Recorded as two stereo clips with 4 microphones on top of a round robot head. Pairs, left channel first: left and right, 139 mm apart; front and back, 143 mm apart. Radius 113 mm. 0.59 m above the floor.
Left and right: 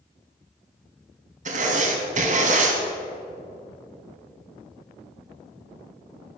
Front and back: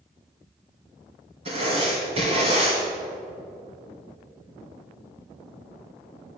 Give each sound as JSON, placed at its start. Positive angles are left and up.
{"t": 1.4, "sound": "writing", "azimuth_deg": -120, "distance_m": 1.8}